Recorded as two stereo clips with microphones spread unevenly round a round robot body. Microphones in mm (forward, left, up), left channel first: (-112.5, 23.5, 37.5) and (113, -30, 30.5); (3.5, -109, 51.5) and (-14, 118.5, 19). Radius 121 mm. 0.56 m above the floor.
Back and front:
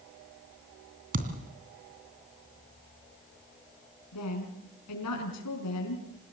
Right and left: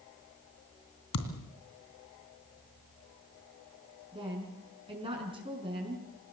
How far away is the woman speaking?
About 5.5 m.